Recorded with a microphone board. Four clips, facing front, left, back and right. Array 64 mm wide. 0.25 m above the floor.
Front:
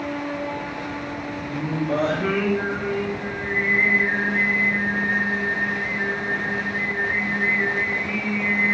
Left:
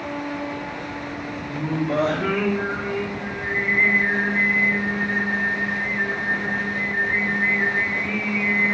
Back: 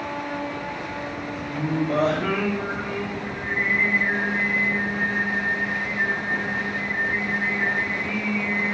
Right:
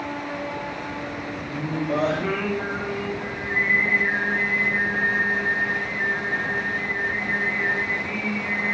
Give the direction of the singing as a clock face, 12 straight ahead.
9 o'clock.